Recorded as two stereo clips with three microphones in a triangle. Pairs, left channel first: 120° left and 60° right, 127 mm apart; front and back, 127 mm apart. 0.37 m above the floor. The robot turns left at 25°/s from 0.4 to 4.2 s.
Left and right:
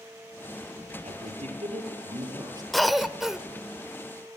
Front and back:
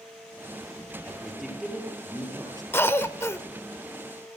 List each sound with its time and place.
1.0 s a man speaking: 80° right, 7 m; by 2.6 s 120° right, 7 m
2.7 s a cough: 35° left, 0.9 m; by 3.4 s 20° left, 0.9 m